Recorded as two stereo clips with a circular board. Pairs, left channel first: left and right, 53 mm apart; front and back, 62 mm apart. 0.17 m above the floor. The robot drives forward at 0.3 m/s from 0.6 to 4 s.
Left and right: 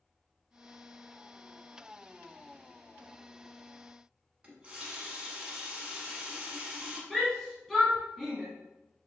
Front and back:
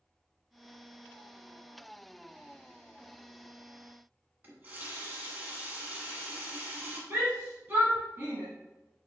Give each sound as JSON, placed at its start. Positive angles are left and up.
{"t": 4.4, "sound": "a running tap", "azimuth_deg": -140, "distance_m": 1.1}
{"t": 7.1, "sound": "a shout", "azimuth_deg": 175, "distance_m": 1.2}